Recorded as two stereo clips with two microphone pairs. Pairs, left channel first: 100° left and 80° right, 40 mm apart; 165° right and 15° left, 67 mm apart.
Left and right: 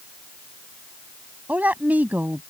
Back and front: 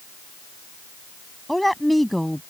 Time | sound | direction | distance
1.5 | a woman speaking | 80° right | ?